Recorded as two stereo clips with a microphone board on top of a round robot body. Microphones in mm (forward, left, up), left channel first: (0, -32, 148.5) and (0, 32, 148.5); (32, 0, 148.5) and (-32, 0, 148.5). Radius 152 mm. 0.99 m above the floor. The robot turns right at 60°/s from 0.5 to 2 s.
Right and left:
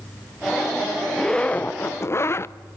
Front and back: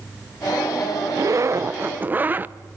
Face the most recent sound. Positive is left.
turn(degrees=-125)